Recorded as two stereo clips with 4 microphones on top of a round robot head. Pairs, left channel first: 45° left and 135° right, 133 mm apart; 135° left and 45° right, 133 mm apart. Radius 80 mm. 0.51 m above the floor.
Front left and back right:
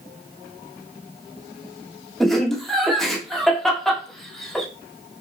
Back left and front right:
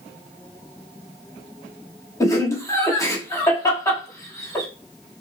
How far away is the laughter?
About 1.4 m.